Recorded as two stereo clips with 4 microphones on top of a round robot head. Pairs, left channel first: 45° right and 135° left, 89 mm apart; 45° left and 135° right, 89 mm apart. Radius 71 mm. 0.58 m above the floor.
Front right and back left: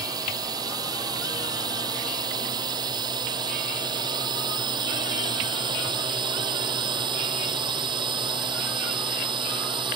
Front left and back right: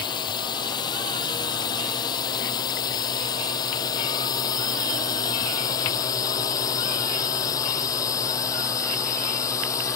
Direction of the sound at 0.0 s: 90° left.